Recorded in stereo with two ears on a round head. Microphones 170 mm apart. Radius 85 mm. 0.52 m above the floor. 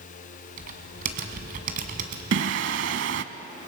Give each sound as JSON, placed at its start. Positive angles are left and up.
{"t": 0.6, "sound": "typing on a keyboard", "side_deg": -50, "distance_m": 2.0}
{"t": 2.3, "sound": "singing", "side_deg": -65, "distance_m": 0.8}